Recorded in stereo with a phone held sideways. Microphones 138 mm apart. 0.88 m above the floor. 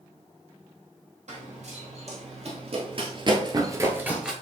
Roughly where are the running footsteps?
Right.